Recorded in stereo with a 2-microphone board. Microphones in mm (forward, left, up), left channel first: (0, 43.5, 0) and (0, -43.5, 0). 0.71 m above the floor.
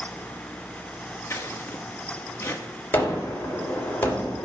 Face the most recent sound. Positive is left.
turn(degrees=25)  # may be behind; listen again after turning